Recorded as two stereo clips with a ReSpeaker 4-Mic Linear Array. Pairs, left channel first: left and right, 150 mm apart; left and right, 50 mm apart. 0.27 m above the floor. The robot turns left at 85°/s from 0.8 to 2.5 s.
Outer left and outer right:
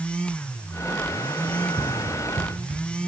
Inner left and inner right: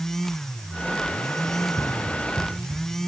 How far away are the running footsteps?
About 2.5 m.